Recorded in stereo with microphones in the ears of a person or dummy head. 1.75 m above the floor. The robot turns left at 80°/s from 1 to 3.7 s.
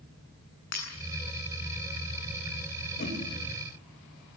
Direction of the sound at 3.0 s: 55° left (ahead or behind).